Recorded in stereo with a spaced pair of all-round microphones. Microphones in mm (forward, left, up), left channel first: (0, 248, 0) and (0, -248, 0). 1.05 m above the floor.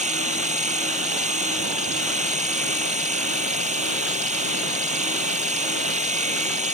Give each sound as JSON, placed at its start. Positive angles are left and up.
{"t": 0.0, "sound": "a machine running", "side_deg": -15}